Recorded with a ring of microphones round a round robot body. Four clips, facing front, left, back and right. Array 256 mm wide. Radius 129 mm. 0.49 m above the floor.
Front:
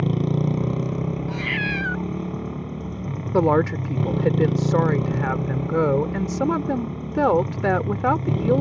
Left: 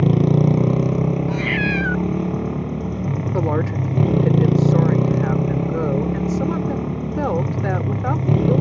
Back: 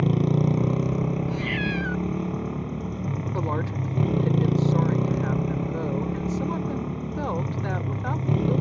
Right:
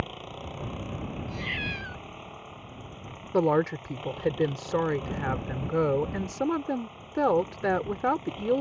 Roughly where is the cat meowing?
Ahead left.